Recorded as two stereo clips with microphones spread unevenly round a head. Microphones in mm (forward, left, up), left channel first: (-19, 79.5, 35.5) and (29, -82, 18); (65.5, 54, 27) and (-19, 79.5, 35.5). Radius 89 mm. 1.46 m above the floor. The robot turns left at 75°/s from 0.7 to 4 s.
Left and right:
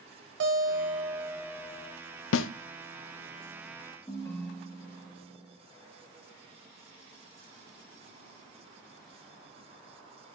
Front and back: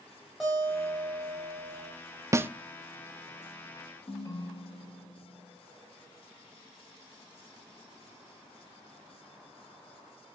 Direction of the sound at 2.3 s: 100° left.